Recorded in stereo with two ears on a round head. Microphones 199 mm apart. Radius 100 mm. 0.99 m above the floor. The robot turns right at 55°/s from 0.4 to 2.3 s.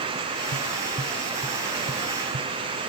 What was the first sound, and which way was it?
Tapping, 45° left (ahead or behind).